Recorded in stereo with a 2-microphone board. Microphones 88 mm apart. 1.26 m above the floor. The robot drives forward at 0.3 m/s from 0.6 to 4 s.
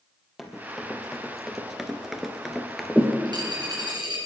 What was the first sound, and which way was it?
Running footsteps, centre (ahead or behind).